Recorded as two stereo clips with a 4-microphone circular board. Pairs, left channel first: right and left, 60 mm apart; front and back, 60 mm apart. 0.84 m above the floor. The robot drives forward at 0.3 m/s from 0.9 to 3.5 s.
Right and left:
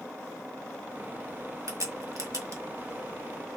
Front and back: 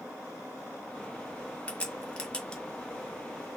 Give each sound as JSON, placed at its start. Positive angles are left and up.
{"t": 1.7, "sound": "a crack", "azimuth_deg": 70, "distance_m": 1.9}